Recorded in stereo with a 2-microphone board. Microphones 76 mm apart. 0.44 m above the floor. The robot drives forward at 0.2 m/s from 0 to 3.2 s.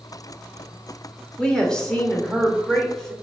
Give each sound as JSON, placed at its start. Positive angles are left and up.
{"t": 1.4, "sound": "a woman speaking", "side_deg": 10, "distance_m": 1.3}